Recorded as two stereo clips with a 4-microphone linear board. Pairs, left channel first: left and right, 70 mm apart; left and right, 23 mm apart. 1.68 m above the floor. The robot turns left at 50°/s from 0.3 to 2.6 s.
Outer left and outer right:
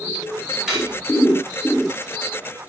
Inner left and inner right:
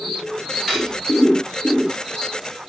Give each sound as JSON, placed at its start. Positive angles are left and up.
{"t": 0.7, "sound": "cutlery clinking", "side_deg": -5, "distance_m": 1.0}